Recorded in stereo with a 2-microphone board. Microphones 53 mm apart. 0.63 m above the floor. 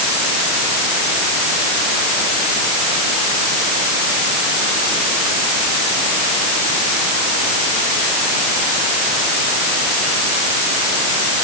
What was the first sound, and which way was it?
Only background noise.